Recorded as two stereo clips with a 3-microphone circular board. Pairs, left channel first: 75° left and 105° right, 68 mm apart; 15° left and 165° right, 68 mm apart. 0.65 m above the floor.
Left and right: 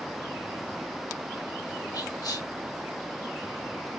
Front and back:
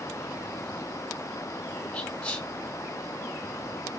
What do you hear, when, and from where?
1.9 s whispering: 90° left, 0.9 m